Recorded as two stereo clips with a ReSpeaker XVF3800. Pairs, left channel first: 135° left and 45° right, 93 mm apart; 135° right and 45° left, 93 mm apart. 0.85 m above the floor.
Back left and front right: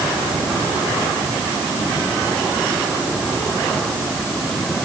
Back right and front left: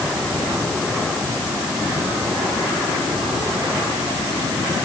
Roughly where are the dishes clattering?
I don't hear dishes clattering.